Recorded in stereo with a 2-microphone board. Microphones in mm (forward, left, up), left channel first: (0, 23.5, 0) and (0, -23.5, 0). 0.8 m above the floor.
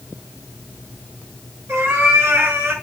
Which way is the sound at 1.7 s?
65° right (ahead or behind).